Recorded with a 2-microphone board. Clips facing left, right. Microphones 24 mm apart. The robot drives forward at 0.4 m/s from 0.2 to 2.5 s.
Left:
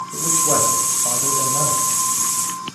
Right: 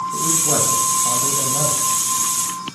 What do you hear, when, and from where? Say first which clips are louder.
0.1 s a man speaking: left 3 dB; 45° left (ahead or behind), 1.4 m